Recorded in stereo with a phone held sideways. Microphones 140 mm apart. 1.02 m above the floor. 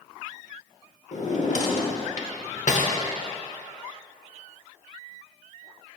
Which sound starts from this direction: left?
A drawer, at 1.1 s.